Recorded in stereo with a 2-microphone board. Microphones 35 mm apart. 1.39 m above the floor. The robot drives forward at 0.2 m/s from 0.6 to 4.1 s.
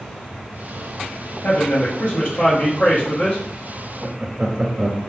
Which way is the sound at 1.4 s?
55° left (ahead or behind).